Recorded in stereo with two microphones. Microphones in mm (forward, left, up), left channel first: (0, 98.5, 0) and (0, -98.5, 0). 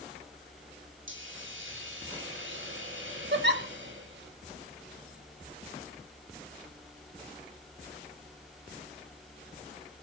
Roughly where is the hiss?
Right.